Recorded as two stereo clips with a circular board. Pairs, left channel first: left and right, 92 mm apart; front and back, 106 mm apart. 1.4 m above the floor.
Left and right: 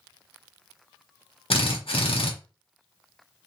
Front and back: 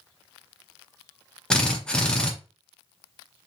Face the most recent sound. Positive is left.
turn(degrees=80)